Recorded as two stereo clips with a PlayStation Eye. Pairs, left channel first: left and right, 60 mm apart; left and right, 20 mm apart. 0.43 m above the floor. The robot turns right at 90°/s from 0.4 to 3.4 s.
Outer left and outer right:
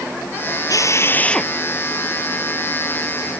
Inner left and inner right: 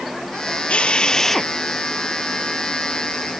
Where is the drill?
105° left; by 1.5 s straight behind.